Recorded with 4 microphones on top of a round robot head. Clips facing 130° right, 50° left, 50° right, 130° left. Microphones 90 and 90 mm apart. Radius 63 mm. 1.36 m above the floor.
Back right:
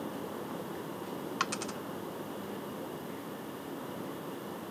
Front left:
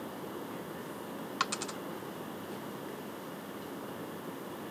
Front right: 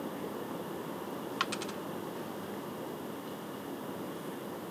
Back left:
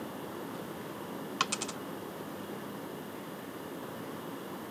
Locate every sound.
1.4 s a dropped coin: 130° left